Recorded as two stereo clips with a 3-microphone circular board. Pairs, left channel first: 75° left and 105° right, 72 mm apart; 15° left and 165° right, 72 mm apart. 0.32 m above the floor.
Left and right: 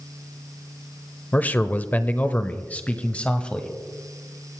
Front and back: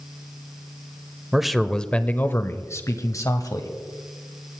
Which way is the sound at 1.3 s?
115° left.